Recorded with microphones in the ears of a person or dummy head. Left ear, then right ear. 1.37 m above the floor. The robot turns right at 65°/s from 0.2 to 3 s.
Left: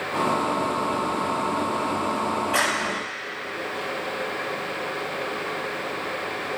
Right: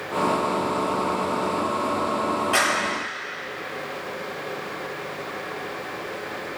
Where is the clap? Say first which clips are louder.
Right 2 dB; 50° right (ahead or behind), 3.5 m; by 2.8 s 30° right (ahead or behind), 3.5 m.